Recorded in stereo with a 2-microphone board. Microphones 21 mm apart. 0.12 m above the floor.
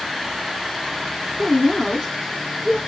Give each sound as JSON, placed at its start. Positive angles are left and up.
{"t": 1.4, "sound": "a woman speaking", "side_deg": 35, "distance_m": 1.2}